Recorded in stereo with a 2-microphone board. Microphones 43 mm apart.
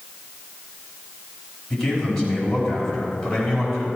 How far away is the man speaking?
About 4.5 m.